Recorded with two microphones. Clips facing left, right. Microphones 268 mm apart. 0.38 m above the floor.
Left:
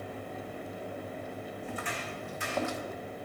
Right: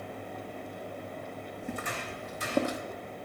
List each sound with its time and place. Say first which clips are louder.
1.6 s footsteps: right 4 dB; 50° right (ahead or behind), 1.4 m; by 2.8 s 40° right (ahead or behind), 0.9 m